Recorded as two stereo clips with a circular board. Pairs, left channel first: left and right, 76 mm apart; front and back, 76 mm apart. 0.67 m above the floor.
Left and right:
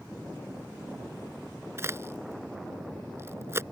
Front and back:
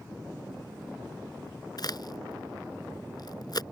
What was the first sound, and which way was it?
A crack, 35° right.